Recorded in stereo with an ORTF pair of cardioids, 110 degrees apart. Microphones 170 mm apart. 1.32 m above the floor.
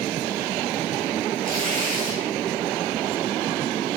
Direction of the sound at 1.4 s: 55° right.